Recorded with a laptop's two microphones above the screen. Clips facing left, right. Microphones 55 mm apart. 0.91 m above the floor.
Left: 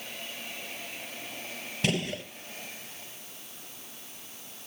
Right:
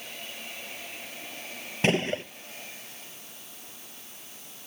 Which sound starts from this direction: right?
A gunshot, at 1.8 s.